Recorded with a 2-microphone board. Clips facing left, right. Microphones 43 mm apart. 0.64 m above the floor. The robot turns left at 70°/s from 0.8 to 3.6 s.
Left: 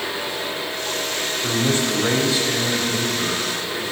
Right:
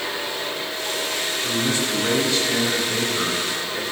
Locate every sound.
1.4 s a man speaking: 70° left, 3.5 m; by 3.8 s 80° right, 3.5 m